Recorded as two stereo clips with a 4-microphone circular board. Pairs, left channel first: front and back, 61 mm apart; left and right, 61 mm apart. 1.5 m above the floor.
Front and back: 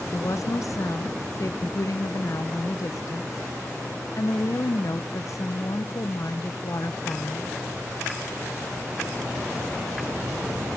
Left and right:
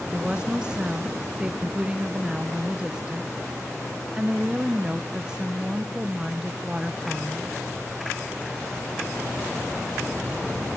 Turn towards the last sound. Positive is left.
turn(degrees=-15)